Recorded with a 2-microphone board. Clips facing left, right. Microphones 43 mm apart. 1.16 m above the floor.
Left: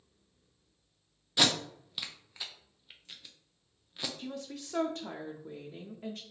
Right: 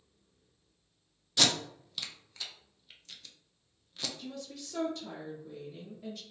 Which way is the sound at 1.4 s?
15° left (ahead or behind).